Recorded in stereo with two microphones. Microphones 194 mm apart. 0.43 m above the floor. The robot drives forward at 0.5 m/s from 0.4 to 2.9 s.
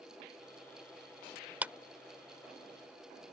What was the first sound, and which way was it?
A clap, 10° right (ahead or behind).